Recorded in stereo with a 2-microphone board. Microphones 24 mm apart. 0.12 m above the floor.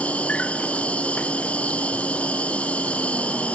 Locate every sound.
0.0 s an insect: 65° left (ahead or behind), 0.8 m